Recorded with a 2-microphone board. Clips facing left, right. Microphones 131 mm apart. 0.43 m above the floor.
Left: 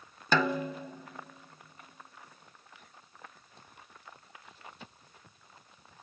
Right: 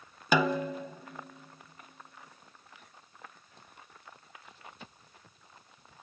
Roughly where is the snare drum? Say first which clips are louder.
Right 2 dB; centre.